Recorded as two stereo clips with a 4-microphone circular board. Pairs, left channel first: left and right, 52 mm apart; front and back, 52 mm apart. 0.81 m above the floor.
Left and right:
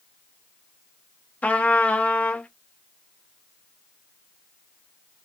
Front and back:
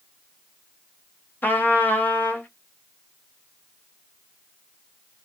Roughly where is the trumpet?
Ahead left.